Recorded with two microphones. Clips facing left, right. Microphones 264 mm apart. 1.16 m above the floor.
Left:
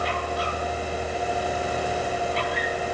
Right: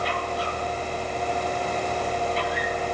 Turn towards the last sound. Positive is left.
No sound to turn to.